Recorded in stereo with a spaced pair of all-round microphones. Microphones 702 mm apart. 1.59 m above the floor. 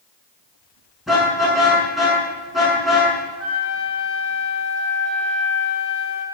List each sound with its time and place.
1.1 s a car horn: centre (ahead or behind), 7 m
3.4 s a flute: 70° right (ahead or behind), 5.5 m